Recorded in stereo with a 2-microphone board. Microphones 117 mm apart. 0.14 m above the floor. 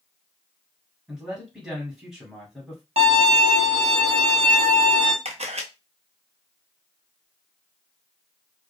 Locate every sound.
1.1 s a man speaking: 10° right (ahead or behind), 1.6 m
3.0 s a violin: 65° right (ahead or behind), 0.9 m
5.2 s a camera shutter: 70° right (ahead or behind), 0.7 m